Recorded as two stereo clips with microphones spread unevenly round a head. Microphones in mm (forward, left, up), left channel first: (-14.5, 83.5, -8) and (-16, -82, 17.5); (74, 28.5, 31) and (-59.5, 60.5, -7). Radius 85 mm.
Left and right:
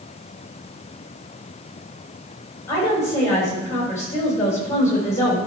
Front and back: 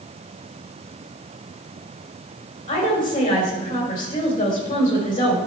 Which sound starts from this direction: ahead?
A woman speaking, at 2.7 s.